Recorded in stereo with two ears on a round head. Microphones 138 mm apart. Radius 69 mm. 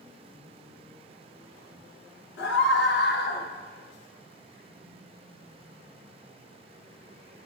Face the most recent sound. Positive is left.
turn(degrees=60)  # may be behind; listen again after turning